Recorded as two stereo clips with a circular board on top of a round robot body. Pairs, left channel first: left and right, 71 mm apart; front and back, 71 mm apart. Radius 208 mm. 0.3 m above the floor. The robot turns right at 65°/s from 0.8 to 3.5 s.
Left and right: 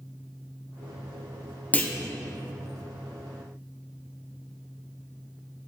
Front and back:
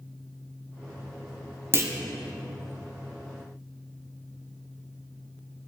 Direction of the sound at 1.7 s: 145° left.